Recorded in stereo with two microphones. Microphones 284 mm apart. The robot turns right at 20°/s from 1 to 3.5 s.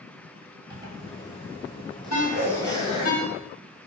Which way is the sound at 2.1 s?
70° left (ahead or behind).